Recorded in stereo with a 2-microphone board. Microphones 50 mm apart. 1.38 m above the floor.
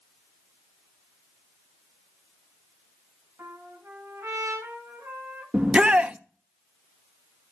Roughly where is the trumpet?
Right.